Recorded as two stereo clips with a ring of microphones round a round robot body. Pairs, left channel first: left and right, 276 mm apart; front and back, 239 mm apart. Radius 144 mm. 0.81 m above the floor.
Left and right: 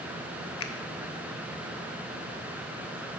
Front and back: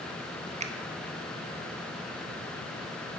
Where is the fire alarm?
No fire alarm in this recording.